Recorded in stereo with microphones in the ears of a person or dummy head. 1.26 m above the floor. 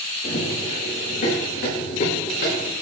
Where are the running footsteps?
45° left (ahead or behind), 5.5 m; by 2.7 s 55° left (ahead or behind), 6.5 m.